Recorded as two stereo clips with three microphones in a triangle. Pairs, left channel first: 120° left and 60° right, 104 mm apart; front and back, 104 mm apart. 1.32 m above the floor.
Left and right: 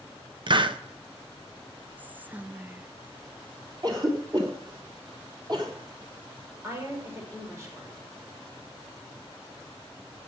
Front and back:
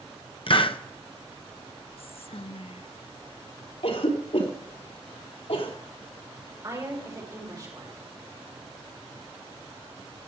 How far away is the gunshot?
I don't hear a gunshot.